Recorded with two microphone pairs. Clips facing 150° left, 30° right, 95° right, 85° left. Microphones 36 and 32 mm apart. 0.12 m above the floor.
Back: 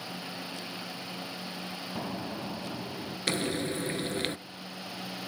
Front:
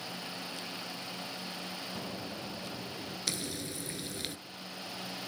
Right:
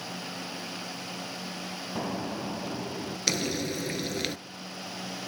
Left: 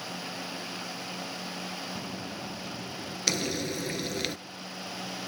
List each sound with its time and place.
1.9 s an explosion: 145° right, 2.5 m
3.3 s frying: 175° left, 0.6 m